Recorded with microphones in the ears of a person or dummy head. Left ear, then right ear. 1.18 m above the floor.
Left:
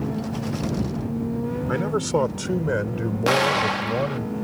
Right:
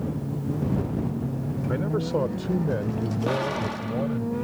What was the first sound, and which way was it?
A man speaking, 45° left (ahead or behind).